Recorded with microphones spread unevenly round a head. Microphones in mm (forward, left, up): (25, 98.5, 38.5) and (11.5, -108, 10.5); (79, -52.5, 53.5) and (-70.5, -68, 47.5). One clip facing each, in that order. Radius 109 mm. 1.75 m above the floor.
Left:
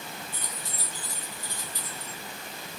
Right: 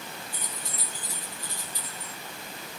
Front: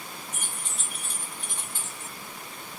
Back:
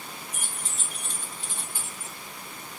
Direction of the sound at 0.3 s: 95° right.